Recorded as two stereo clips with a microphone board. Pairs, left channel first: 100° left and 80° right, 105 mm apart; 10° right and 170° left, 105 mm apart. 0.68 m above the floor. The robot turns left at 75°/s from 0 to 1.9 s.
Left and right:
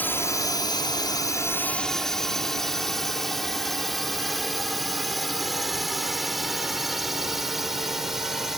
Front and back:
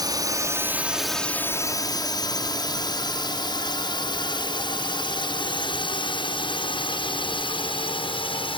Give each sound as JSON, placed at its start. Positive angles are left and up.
{"t": 0.0, "sound": "a drone", "azimuth_deg": 165}